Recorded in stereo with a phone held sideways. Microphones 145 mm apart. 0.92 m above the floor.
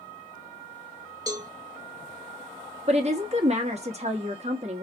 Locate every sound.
1.3 s a cowbell: 25° right (ahead or behind), 1.5 m
2.9 s a woman speaking: 45° right (ahead or behind), 1.2 m